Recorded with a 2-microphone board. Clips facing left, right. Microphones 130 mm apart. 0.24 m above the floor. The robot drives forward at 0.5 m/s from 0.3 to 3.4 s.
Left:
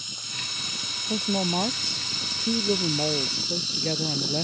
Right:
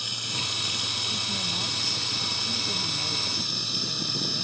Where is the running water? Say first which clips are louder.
Right 6 dB; 70° right (ahead or behind); by 4.5 s 60° right (ahead or behind).